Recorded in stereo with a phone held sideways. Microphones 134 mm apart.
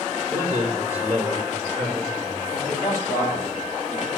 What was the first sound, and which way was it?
A man speaking, 20° left (ahead or behind).